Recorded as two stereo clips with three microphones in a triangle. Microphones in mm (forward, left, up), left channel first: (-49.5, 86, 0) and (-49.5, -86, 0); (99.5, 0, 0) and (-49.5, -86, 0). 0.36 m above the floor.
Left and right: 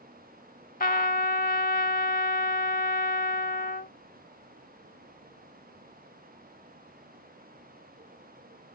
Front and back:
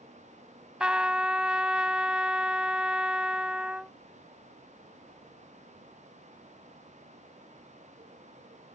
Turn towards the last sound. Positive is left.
turn(degrees=125)